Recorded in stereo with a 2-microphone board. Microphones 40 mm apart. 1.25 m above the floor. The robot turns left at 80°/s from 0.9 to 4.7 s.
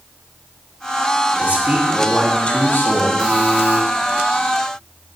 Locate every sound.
1.4 s a man speaking: 125° right, 2.5 m; by 3.1 s 100° left, 2.5 m
3.2 s a buzzer: 30° right, 2.5 m; by 3.8 s 75° right, 2.5 m